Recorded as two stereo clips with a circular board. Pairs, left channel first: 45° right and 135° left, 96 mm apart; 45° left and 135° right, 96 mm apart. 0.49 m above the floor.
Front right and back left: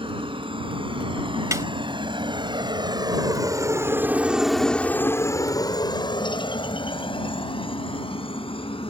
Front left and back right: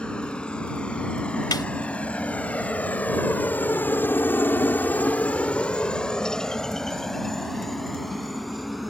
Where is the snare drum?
85° left.